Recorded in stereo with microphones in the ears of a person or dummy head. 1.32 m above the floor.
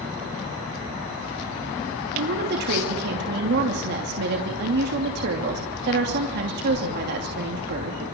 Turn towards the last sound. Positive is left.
turn(degrees=-55)  # may be behind; listen again after turning